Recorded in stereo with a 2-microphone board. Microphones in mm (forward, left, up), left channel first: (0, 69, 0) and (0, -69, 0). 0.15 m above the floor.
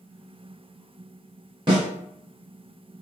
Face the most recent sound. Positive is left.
turn(degrees=-35)  # may be behind; listen again after turning